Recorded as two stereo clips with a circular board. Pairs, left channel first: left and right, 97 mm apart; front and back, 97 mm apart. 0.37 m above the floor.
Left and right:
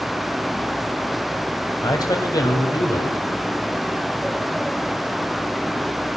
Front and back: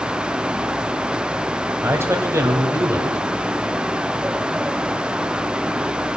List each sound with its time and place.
1.8 s a man speaking: 125° left, 1.9 m